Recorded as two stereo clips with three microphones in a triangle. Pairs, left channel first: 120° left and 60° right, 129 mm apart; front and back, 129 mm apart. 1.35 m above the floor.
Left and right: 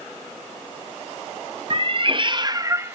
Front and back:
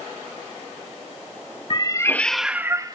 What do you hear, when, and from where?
1.7 s a cat meowing: 35° right, 0.8 m; by 3.0 s 130° right, 0.9 m